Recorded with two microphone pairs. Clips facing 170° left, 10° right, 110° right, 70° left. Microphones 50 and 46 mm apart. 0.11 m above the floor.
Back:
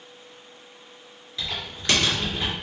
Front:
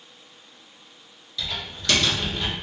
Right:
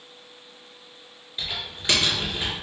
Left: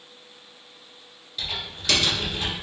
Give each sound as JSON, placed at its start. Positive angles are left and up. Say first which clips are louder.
{"t": 1.4, "sound": "typing on a keyboard", "louder": "even, even", "azimuth_deg": -145, "distance_m": 1.7}